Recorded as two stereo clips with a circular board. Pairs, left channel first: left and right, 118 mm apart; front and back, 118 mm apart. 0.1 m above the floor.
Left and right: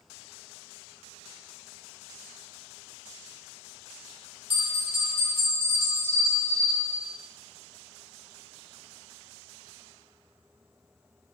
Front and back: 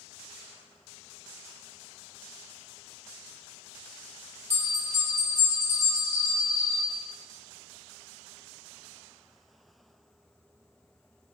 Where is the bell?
60° right, 1.6 m.